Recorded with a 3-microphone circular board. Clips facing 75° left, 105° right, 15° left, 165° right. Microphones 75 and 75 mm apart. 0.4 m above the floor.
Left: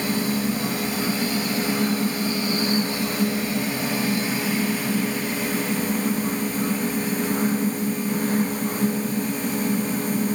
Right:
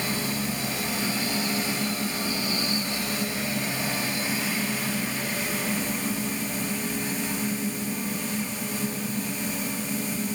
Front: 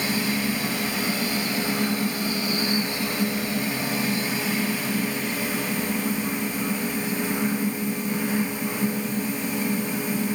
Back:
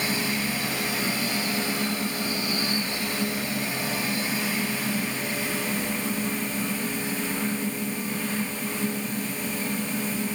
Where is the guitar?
No guitar in this recording.